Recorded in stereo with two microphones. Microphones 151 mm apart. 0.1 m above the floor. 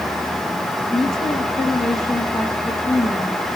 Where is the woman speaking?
Centre (ahead or behind), 4.5 m.